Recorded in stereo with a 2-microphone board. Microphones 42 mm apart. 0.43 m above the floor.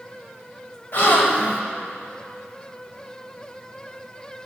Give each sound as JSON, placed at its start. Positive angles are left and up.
{"t": 0.9, "sound": "a gasp", "side_deg": 50, "distance_m": 2.5}